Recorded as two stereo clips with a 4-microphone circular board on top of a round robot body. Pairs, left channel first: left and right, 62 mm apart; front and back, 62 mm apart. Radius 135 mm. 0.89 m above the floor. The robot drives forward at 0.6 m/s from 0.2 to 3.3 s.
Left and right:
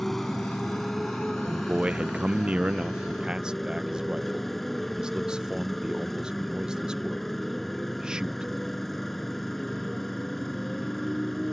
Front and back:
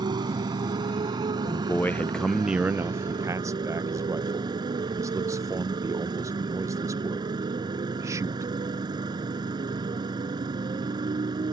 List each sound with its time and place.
0.0 s a motorcycle: straight behind
1.4 s a man speaking: 15° right; by 8.5 s 165° right